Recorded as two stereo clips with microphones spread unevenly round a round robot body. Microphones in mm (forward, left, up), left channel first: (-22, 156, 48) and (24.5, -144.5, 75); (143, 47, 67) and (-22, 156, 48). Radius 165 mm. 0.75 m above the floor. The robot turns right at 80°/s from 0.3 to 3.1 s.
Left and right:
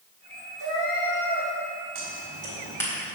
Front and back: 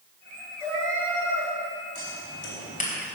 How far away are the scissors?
About 3.5 m.